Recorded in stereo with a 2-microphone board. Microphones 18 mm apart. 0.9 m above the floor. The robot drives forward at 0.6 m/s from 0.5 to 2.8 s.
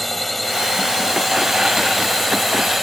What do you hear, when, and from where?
0.0 s a drone: 5° left (ahead or behind)